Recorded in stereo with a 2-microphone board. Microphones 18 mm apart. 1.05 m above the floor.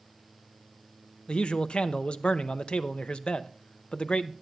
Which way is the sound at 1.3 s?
65° left (ahead or behind).